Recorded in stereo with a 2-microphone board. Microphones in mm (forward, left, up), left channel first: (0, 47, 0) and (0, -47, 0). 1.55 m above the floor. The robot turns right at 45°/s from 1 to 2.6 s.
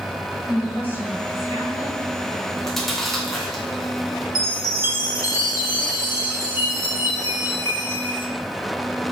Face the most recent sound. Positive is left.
turn(degrees=40)  # may be behind; listen again after turning